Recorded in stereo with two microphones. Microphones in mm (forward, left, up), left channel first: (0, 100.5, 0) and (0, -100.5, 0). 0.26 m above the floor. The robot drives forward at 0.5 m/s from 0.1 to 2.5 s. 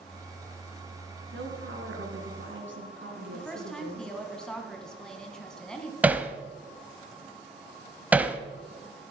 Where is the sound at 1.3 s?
70° right (ahead or behind), 4 m.